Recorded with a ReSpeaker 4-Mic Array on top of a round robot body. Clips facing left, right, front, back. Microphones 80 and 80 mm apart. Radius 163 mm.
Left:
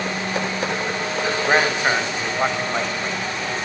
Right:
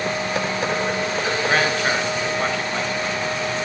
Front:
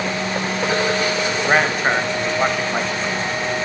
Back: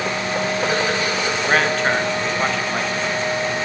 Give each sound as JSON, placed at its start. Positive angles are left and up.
{"t": 1.5, "sound": "a man speaking", "azimuth_deg": 65, "distance_m": 1.2}